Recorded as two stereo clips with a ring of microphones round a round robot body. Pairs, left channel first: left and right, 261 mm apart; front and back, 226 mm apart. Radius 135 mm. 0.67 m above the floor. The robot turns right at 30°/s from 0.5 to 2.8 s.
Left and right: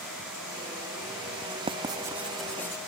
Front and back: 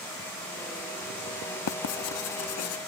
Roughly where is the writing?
Ahead.